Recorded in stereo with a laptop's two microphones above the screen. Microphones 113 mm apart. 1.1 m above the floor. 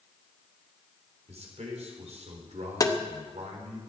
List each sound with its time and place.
1.3 s a man speaking: 75° right (ahead or behind), 4 m
2.8 s tapping: 30° left (ahead or behind), 0.8 m